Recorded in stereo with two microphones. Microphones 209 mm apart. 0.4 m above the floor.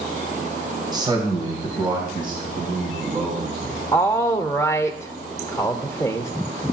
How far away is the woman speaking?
About 0.9 m.